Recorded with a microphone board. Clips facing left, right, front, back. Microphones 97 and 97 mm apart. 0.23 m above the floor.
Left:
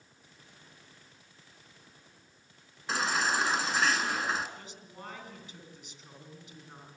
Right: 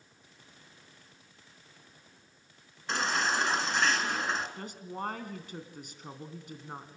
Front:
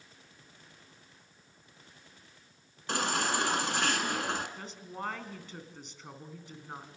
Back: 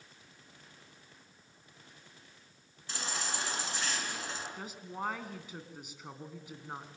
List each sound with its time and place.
2.9 s a baby crying: 5° left, 2 m
4.6 s a woman speaking: 100° right, 2.5 m